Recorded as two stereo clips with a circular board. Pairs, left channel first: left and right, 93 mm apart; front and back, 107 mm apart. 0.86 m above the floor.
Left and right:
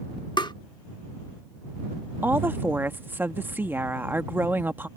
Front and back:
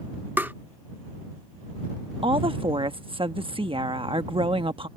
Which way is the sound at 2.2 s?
155° right.